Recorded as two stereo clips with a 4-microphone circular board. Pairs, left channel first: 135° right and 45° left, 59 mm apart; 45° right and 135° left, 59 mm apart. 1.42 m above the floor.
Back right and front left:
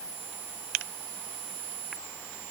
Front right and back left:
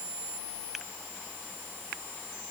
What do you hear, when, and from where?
Only background noise.